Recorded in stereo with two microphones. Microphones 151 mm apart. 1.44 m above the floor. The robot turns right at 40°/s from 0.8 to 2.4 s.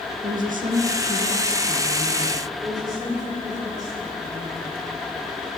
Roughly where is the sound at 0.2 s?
Behind right.